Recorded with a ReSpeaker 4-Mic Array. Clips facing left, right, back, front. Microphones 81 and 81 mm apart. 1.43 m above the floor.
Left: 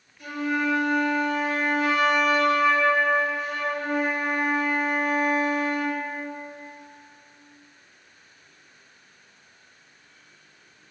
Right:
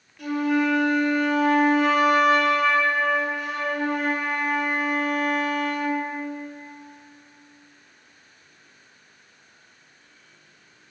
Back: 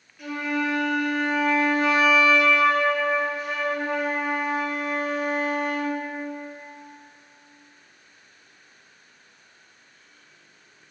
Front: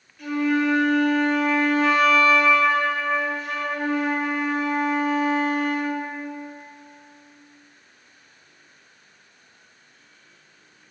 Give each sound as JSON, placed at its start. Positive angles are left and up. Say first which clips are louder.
{"t": 0.2, "sound": "a flute", "louder": "right 4 dB, front 5 dB", "azimuth_deg": -95, "distance_m": 0.6}